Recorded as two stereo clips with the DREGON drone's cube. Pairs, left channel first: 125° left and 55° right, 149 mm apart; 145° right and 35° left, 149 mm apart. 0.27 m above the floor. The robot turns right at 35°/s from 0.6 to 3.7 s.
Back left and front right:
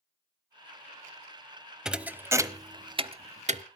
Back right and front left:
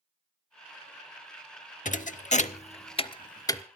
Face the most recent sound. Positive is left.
turn(degrees=-75)